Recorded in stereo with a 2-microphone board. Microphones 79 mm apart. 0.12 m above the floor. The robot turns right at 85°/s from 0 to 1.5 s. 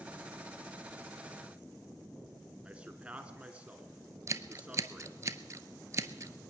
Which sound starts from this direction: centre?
A man speaking, at 2.6 s.